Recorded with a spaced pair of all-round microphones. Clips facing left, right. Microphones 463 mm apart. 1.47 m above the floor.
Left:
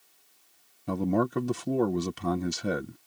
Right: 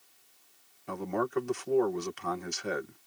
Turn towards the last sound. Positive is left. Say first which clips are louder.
# left 6 dB
turn(degrees=55)  # may be behind; listen again after turning